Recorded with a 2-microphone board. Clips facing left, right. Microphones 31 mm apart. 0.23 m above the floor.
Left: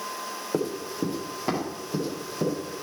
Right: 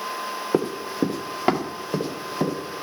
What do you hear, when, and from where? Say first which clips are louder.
0.5 s running footsteps: right 5 dB; 40° right (ahead or behind), 1.1 m; by 2.6 s 50° right (ahead or behind), 3.5 m